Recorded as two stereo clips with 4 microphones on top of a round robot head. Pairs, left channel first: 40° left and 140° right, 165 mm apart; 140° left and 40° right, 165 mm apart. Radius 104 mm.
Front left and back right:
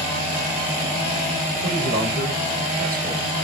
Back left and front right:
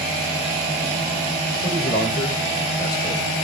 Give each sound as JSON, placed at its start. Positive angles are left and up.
{"t": 1.6, "sound": "a man speaking", "azimuth_deg": -160, "distance_m": 2.5}